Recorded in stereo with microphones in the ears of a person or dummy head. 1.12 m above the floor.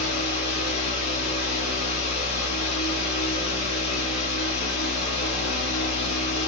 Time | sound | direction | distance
0.0 | a fan | 65° left (ahead or behind) | 1.4 m